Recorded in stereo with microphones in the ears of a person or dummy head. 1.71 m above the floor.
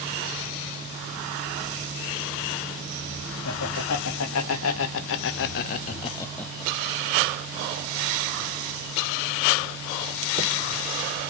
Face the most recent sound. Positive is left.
turn(degrees=-40)  # may be behind; listen again after turning